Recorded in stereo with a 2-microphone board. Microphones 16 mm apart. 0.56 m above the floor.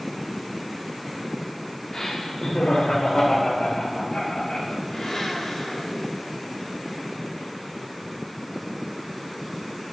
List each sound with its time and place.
1.9 s laughter: 40° left (ahead or behind), 1.0 m; by 4.8 s 65° left (ahead or behind), 2.5 m
4.9 s a blender: 35° left (ahead or behind), 1.5 m